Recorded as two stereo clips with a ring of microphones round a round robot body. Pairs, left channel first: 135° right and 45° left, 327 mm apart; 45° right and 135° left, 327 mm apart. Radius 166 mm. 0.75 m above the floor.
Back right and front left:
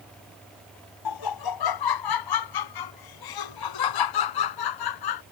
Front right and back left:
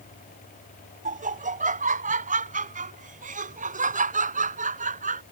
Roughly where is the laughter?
Behind right.